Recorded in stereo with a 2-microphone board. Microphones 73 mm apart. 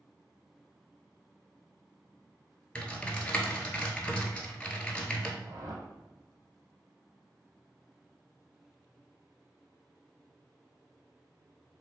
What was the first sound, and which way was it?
Typing on a keyboard, 15° left (ahead or behind).